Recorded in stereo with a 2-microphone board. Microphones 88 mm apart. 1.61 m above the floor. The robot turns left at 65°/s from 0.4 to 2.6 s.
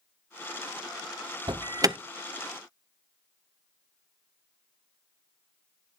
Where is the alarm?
65° right (ahead or behind), 0.8 m; by 2.0 s 35° right (ahead or behind), 0.8 m.